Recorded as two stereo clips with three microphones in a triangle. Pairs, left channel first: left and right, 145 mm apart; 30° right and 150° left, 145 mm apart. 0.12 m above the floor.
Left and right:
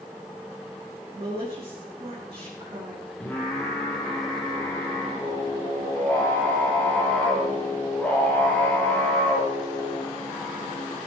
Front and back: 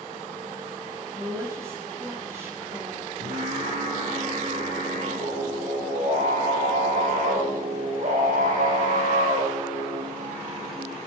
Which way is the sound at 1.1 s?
140° right.